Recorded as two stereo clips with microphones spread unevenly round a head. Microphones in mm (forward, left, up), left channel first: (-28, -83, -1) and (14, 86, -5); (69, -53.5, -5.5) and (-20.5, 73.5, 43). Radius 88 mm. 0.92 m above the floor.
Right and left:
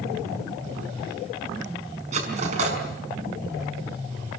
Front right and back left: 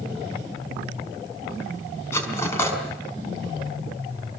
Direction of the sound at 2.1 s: 20° left.